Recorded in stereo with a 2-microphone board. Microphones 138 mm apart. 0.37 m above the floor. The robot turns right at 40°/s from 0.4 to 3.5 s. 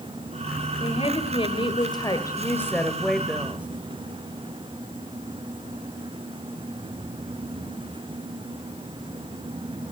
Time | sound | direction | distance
0.8 | a woman speaking | 85° left | 1.5 m